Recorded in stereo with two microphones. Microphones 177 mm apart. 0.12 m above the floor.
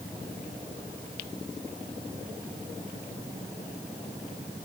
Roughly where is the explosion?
I don't hear an explosion.